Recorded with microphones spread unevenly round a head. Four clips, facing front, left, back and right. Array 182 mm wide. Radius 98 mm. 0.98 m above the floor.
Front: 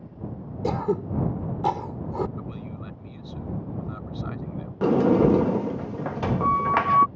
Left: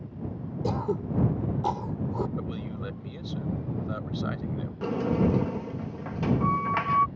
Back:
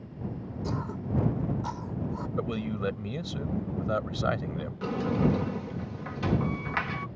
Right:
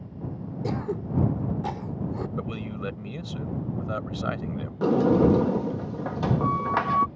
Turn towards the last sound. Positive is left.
turn(degrees=-40)